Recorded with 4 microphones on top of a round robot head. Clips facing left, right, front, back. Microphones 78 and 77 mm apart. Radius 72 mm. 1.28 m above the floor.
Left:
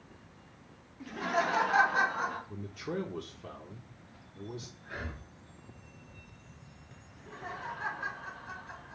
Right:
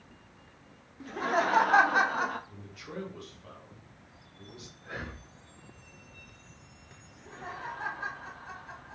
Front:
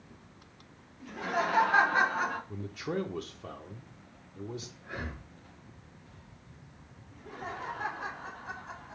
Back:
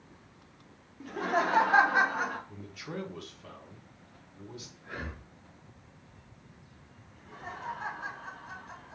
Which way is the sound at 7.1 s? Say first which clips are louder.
Even, front 3 dB; 30° right.